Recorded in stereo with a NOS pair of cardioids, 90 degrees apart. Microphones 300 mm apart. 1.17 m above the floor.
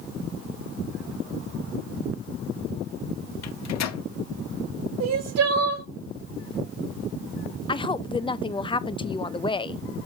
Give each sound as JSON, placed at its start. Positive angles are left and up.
{"t": 3.4, "sound": "a microwave", "azimuth_deg": 60, "distance_m": 1.0}
{"t": 5.0, "sound": "crying", "azimuth_deg": -55, "distance_m": 1.8}
{"t": 7.7, "sound": "a woman speaking", "azimuth_deg": 15, "distance_m": 0.7}